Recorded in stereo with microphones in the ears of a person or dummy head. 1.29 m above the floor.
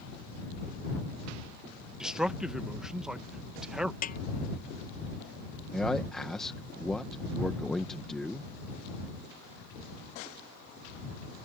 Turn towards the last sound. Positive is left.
turn(degrees=0)  # may be behind; listen again after turning